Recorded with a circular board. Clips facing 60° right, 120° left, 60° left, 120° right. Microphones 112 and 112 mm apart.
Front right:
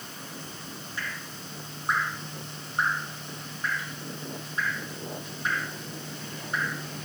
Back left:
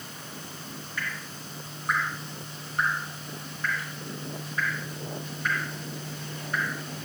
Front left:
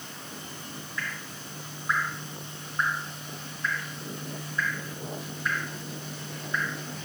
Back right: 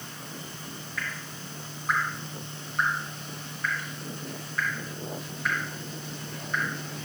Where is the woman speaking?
I don't hear a woman speaking.